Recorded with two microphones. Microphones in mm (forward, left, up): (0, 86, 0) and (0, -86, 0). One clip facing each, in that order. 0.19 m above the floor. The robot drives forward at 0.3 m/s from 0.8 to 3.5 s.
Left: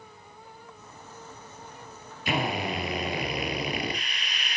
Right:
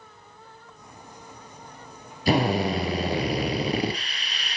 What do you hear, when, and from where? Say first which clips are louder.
2.3 s a drill: right 7 dB; 35° right (ahead or behind), 3.5 m